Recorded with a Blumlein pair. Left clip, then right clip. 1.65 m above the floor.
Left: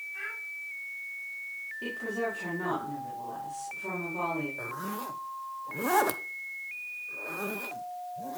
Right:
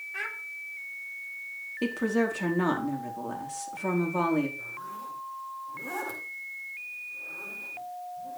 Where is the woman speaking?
60° right, 4.5 m.